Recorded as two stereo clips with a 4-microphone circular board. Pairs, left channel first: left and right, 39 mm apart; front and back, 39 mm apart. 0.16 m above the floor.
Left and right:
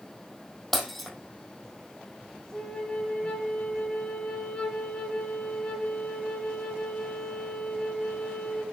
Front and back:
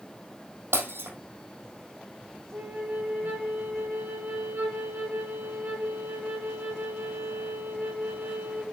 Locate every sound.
0.7 s breaking glass: straight behind, 2.5 m
2.5 s a flute: 150° left, 3.5 m